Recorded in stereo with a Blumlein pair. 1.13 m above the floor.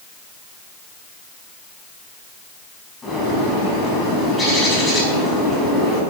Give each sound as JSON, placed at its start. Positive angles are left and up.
{"t": 3.0, "sound": "a bird", "azimuth_deg": 10, "distance_m": 6.0}